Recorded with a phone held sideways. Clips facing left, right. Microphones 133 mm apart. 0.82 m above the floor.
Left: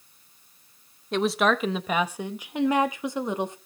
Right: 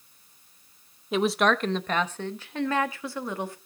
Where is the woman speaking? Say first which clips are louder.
Even; 5° right (ahead or behind), 0.8 m; by 3.6 s 20° left (ahead or behind), 1.7 m.